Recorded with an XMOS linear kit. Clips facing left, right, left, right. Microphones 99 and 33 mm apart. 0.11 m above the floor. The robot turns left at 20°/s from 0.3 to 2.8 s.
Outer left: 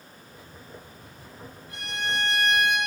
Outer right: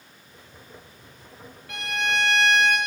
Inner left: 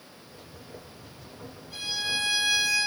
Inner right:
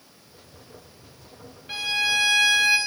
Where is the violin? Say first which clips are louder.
Outer right 4 dB, inner right 7 dB; 80° right, 2.5 m; by 2.8 s 60° right (ahead or behind), 2.5 m.